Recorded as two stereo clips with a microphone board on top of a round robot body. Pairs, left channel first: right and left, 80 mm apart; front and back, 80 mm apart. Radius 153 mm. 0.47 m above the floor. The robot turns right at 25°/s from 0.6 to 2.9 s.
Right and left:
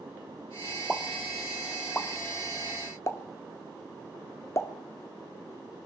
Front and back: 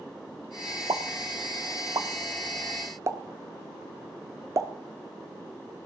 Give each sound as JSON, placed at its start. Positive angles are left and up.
{"t": 0.9, "sound": "a pop", "azimuth_deg": 175, "distance_m": 1.5}